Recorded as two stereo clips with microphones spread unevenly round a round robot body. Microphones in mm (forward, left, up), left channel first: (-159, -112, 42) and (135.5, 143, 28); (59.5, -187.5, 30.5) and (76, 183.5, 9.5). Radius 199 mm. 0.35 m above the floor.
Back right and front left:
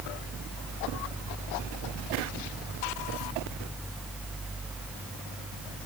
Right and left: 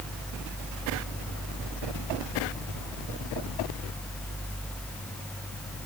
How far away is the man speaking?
I don't hear a man speaking.